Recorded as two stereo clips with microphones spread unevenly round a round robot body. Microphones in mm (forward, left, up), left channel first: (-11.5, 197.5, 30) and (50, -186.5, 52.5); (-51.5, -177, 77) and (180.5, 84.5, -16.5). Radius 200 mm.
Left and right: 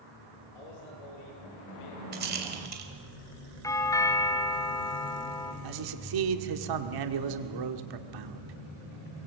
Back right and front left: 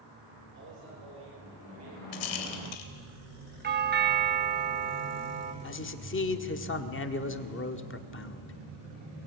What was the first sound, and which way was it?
A man speaking, 110° left.